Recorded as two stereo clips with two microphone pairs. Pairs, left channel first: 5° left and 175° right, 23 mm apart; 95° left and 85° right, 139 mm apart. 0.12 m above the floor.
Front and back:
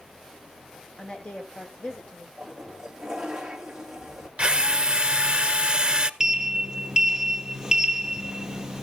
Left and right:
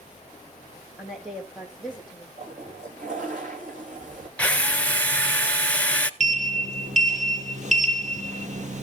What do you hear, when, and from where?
1.0 s a woman speaking: straight ahead, 6 m; by 2.3 s 5° left, 4 m
2.4 s a toilet flushing: 100° right, 3 m
4.4 s a drill: 170° left, 0.8 m
6.2 s a sliding door: 110° right, 0.7 m